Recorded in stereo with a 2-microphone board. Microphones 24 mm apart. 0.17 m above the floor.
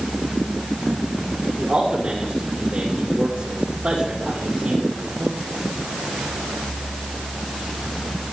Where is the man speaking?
75° right (ahead or behind), 8.5 m.